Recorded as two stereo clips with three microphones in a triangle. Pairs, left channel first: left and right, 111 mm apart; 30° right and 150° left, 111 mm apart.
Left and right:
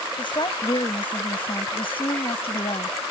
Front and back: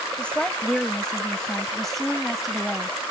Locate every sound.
0.2 s a woman speaking: 50° left; by 3.0 s 60° left